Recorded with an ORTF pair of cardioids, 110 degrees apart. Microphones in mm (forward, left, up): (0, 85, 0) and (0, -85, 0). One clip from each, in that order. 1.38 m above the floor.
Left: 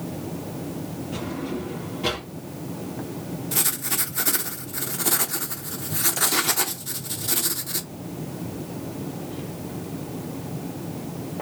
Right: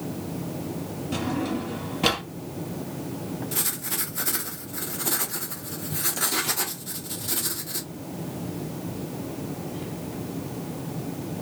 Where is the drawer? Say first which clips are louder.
Right 3 dB; 60° right, 1.5 m.